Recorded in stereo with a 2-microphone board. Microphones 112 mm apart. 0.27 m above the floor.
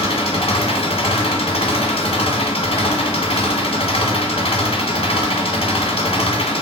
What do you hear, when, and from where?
0.0 s an engine running: 65° left (ahead or behind), 1.2 m